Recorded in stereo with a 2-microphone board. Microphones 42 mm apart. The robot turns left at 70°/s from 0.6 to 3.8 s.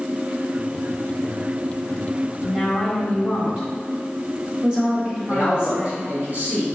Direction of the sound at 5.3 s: 45° right (ahead or behind).